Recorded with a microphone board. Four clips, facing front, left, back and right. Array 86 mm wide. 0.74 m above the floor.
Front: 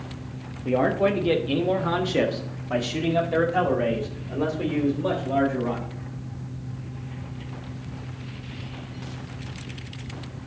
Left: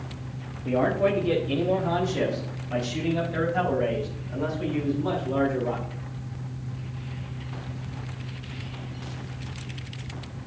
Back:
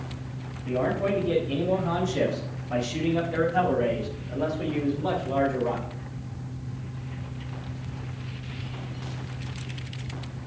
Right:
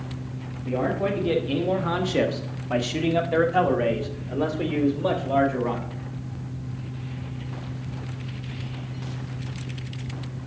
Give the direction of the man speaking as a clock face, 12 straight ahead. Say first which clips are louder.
Left 2 dB, front 4 dB; 11 o'clock.